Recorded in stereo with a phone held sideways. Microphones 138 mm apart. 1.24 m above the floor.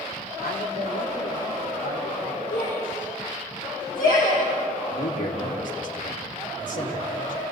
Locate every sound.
0.4 s a man speaking: 75° left (ahead or behind), 3 m; by 2.4 s 80° left, 4.5 m
2.5 s a shout: 80° left, 6 m
4.9 s a man speaking: 70° left (ahead or behind), 3.5 m